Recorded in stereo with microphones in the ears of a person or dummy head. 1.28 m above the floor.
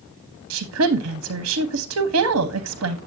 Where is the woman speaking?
75° right (ahead or behind), 1.0 m.